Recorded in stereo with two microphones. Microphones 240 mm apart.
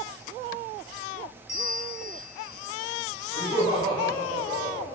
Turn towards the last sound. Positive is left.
turn(degrees=20)  # may be behind; listen again after turning